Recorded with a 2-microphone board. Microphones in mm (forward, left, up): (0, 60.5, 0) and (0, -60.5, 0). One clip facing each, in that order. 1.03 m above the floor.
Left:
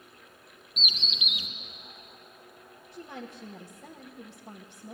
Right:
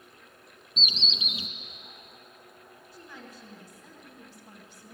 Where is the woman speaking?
70° left (ahead or behind), 1.2 m.